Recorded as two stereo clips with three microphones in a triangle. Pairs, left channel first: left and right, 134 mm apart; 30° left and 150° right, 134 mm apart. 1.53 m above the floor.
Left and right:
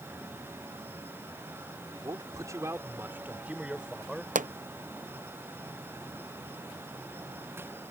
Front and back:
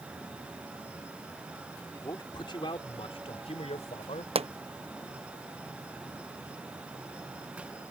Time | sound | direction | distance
1.9 | a man speaking | 35° right | ?
4.3 | a pop | 105° right | ?